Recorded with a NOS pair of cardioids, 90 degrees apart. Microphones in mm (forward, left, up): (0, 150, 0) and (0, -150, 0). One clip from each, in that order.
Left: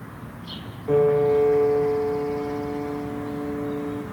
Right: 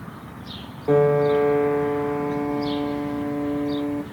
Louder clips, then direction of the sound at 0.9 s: Right 1 dB; 30° right.